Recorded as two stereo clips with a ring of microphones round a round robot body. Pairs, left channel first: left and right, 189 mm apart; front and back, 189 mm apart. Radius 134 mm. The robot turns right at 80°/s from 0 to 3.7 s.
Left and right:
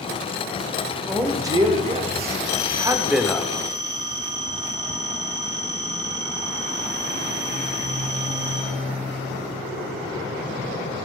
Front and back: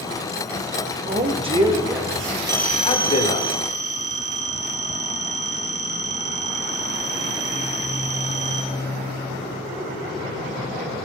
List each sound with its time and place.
1.1 s a man speaking: straight behind, 1.0 m; by 3.5 s 15° left, 1.0 m
2.5 s a phone ringing: 115° left, 1.1 m; by 8.6 s 150° right, 1.1 m